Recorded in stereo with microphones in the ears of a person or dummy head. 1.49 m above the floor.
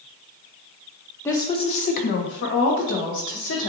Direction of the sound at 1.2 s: 20° left (ahead or behind).